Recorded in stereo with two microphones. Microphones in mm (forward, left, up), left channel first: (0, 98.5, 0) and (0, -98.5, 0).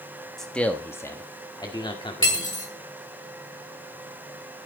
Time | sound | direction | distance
0.4 | a man speaking | centre (ahead or behind) | 1.3 m
2.2 | cutlery clinking | 80° left | 2.5 m